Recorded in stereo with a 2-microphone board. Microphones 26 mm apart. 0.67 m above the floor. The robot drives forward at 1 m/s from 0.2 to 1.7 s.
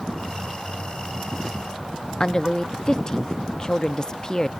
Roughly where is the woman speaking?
Left.